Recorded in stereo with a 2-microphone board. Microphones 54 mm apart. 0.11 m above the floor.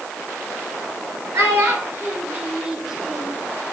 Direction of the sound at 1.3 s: 55° right (ahead or behind).